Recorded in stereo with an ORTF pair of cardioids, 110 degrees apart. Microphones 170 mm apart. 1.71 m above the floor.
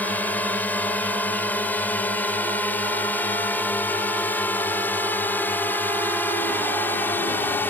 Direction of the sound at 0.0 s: 10° left.